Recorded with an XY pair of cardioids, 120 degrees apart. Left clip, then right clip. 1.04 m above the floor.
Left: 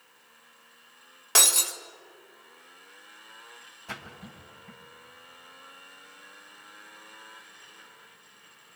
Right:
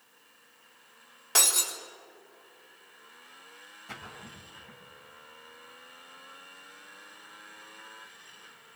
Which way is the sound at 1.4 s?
30° left.